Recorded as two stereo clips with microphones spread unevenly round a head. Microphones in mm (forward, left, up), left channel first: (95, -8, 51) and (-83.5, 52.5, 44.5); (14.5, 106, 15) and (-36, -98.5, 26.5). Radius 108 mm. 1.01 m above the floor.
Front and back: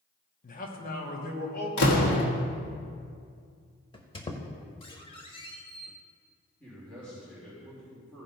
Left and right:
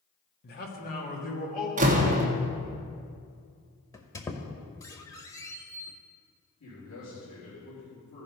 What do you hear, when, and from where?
0.4 s a man speaking: 30° left, 1.4 m; by 1.7 s 20° left, 3 m
1.8 s a door slam: 45° right, 1.4 m
3.9 s a squeak: 10° left, 0.8 m
6.6 s a man speaking: 65° left, 3.5 m